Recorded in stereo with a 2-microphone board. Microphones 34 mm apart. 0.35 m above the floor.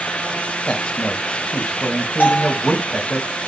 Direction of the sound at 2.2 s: 60° left (ahead or behind).